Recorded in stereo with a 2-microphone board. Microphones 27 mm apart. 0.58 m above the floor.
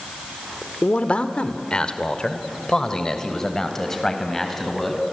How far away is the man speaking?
About 1.5 m.